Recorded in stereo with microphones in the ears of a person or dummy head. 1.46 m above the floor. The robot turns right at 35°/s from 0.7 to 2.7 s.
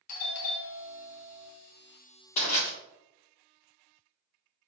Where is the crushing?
35° left (ahead or behind), 1.5 m; by 2.7 s 45° left (ahead or behind), 1.5 m.